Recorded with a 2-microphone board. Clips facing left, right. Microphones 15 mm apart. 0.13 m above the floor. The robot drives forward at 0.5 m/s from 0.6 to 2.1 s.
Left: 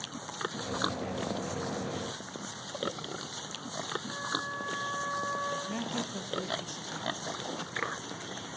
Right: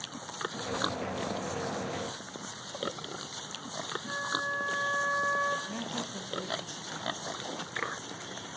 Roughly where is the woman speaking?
Centre.